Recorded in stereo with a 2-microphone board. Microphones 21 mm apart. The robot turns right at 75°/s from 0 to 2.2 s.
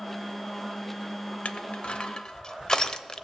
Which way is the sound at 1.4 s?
75° left (ahead or behind).